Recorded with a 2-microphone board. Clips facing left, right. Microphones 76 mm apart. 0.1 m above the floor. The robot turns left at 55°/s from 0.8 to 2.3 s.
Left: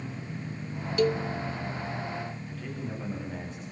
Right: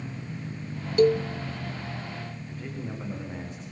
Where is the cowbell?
40° right (ahead or behind), 0.5 m; by 1.3 s 55° right (ahead or behind), 0.5 m.